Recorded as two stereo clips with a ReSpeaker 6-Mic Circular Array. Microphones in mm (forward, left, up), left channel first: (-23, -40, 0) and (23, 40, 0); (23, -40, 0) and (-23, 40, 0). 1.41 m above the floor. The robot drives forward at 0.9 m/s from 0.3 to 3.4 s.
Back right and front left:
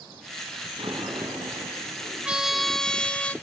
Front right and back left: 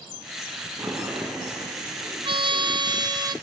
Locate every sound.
0.8 s a sliding door: 70° left, 9 m; by 2.1 s 80° left, 9 m
2.2 s a trumpet: 140° left, 0.7 m; by 3.4 s 165° left, 1.6 m